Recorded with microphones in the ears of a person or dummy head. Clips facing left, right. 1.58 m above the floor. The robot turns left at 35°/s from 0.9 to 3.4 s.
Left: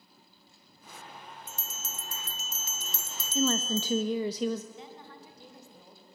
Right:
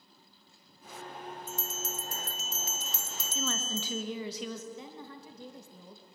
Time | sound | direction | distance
1.5 | a bell | 140° left | 0.6 m
3.4 | a woman speaking | 45° left (ahead or behind) | 1.4 m
4.7 | a woman speaking | 75° right (ahead or behind) | 3 m